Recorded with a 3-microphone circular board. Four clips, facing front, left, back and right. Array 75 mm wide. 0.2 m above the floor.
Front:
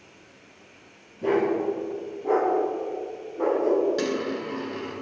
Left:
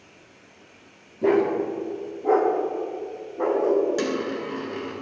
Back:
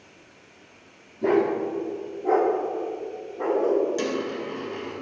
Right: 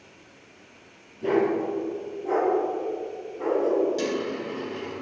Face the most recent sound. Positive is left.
turn(degrees=65)